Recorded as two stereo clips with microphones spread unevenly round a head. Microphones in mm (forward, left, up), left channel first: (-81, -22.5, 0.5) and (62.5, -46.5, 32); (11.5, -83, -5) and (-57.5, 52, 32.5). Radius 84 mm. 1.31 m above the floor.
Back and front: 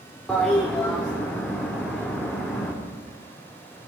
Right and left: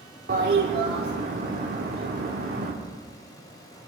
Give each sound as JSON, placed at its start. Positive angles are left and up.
{"t": 0.3, "sound": "a toilet flushing", "azimuth_deg": 80, "distance_m": 3.0}